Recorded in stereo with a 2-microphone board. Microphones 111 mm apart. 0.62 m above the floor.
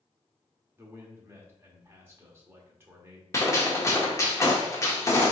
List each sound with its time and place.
0.8 s a man speaking: 20° right (ahead or behind), 1.1 m
3.3 s a gunshot: 25° left (ahead or behind), 1.0 m